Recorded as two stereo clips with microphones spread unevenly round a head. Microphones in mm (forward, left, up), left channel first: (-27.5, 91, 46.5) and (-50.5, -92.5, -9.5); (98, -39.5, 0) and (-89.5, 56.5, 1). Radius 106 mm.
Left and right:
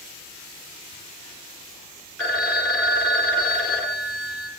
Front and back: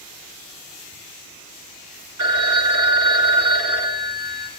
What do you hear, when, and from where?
2.2 s a phone ringing: 165° left, 4.5 m